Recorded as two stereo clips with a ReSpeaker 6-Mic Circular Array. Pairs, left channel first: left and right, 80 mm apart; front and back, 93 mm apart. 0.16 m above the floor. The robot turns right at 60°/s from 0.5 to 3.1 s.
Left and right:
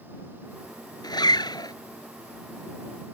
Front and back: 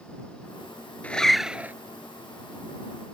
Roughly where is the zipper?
Left.